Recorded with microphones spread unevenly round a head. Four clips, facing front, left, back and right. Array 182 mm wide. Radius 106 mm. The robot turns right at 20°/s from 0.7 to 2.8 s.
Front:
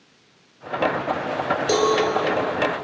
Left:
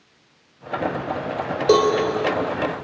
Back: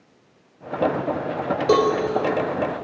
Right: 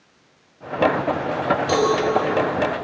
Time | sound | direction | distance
1.7 | a cowbell | 125° left | 3.5 m